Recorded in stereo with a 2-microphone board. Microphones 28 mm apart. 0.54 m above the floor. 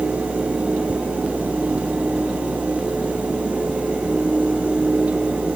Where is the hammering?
No hammering in this recording.